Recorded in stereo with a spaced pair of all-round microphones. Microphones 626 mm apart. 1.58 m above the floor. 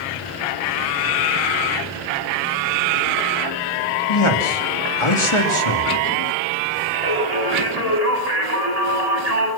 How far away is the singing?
About 8 m.